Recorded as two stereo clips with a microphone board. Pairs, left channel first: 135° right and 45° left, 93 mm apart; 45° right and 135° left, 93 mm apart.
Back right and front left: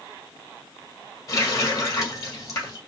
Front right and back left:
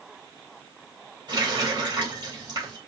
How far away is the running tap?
About 2.5 m.